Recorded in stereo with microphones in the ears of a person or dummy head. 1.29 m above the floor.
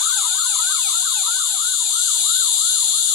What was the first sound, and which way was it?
An insect, 20° left (ahead or behind).